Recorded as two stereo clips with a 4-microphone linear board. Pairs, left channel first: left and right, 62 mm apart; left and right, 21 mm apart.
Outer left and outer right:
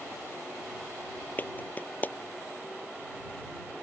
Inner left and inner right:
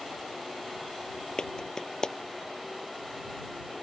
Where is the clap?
30° left (ahead or behind).